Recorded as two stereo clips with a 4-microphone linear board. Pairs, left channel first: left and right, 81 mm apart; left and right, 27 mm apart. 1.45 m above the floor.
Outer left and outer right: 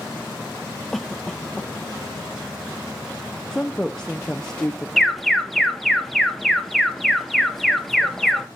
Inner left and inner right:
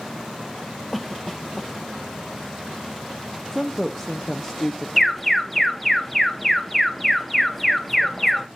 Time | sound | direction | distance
0.9 | a cough | 5° left (ahead or behind) | 1.0 m
3.5 | a woman speaking | 10° left (ahead or behind) | 0.7 m
5.0 | an alarm | centre (ahead or behind) | 1.0 m